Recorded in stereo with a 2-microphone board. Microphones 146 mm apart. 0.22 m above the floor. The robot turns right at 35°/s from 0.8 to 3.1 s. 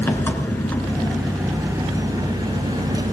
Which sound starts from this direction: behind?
An engine running, at 0.0 s.